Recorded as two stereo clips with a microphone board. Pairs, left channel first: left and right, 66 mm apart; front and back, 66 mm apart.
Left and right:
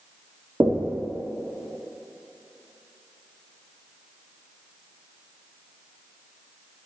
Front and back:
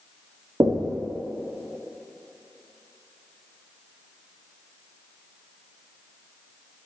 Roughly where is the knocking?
Behind right.